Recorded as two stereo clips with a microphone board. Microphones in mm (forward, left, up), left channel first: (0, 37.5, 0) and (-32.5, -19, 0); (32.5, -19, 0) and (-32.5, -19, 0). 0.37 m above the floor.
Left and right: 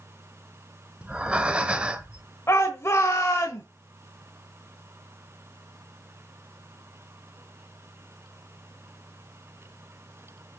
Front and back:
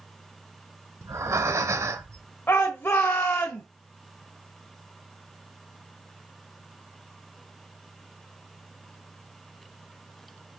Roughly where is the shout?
Ahead left.